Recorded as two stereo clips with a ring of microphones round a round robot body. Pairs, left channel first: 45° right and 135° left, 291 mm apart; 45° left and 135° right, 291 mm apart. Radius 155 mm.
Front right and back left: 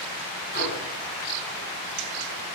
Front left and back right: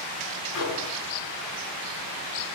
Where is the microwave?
15° left, 6 m.